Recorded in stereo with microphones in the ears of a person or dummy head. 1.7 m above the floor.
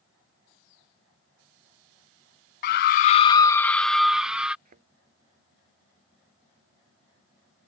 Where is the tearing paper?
I don't hear tearing paper.